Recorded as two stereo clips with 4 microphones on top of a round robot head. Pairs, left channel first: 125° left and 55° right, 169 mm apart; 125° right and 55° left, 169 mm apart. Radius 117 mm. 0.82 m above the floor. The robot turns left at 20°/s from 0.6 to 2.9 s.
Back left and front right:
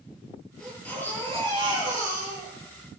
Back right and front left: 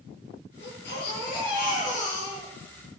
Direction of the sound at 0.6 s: 145° right.